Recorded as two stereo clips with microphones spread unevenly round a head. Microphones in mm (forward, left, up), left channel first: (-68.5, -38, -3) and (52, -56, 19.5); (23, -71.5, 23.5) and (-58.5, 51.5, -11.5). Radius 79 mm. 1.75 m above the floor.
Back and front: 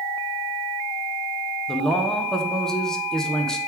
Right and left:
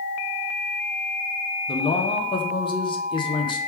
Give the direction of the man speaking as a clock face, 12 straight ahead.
3 o'clock.